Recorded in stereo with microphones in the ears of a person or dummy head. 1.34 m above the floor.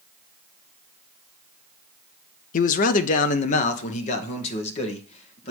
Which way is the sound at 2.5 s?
40° left (ahead or behind).